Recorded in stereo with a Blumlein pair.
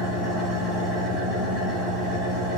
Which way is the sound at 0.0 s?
15° left.